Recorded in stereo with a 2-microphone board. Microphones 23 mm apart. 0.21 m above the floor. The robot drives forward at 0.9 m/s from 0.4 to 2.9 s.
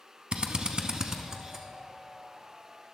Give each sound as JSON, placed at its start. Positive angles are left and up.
{"t": 0.3, "sound": "a drill", "side_deg": -45, "distance_m": 0.6}